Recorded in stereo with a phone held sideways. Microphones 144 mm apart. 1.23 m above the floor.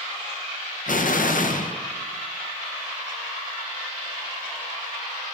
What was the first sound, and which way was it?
An explosion, 70° left (ahead or behind).